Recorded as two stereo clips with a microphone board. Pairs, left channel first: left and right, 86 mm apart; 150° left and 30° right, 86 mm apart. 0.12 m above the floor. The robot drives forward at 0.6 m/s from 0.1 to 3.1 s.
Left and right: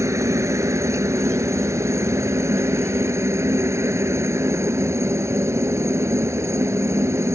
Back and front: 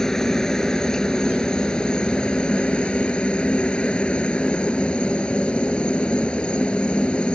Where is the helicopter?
130° right; by 7.4 s 135° right.